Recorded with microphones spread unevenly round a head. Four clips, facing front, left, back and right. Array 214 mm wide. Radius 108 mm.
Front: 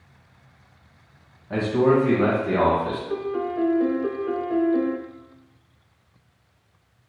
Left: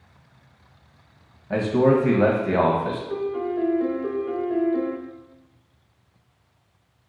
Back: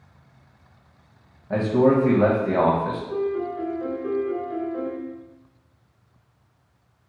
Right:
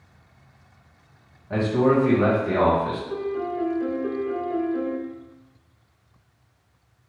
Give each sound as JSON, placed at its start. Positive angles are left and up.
{"t": 1.5, "sound": "a man speaking", "azimuth_deg": 140, "distance_m": 1.3}
{"t": 3.1, "sound": "a piano", "azimuth_deg": 10, "distance_m": 0.5}